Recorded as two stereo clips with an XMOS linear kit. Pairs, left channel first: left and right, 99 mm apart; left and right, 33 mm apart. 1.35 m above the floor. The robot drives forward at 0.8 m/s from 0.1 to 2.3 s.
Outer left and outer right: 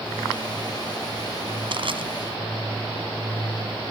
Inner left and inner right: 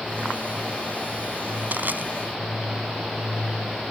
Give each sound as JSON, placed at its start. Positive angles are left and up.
{"t": 1.7, "sound": "crushing", "side_deg": -60}